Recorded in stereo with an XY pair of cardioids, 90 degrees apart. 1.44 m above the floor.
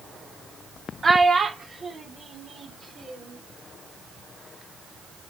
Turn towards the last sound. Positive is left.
turn(degrees=-50)